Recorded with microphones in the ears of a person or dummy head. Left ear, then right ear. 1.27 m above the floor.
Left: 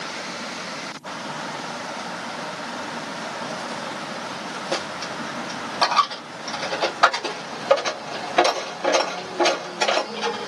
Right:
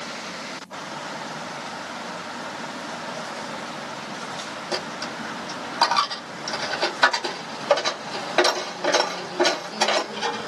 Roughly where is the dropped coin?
Centre.